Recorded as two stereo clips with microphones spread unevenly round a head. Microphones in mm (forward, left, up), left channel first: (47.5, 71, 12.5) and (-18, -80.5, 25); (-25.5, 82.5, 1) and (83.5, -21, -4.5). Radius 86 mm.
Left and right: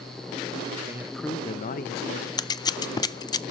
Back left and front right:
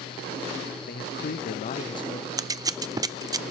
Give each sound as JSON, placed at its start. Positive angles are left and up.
{"t": 0.8, "sound": "a man speaking", "azimuth_deg": 175, "distance_m": 0.6}
{"t": 2.4, "sound": "scissors", "azimuth_deg": 15, "distance_m": 0.6}